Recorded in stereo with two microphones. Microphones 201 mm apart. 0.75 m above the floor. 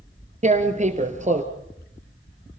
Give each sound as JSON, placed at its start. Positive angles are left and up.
{"t": 0.4, "sound": "tearing paper", "side_deg": -35, "distance_m": 2.5}